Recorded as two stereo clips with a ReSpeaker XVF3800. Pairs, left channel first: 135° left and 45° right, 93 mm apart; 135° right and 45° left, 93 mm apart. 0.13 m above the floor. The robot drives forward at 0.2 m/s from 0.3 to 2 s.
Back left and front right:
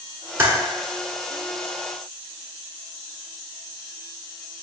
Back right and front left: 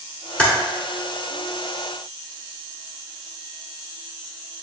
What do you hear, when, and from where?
0.4 s typing on a keyboard: 70° right, 1.1 m; by 0.5 s 75° right, 1.1 m